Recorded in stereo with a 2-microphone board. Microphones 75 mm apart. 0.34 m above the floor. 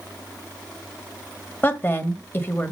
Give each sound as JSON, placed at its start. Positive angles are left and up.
{"t": 1.6, "sound": "a woman speaking", "side_deg": 30, "distance_m": 1.5}